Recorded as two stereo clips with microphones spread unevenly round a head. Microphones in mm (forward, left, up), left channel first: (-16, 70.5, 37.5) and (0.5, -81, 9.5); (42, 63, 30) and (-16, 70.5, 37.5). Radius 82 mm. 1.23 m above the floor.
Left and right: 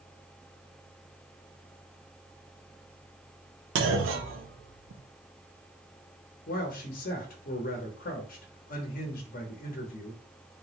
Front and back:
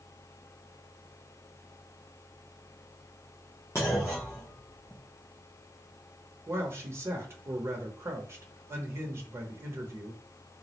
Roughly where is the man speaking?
Behind left.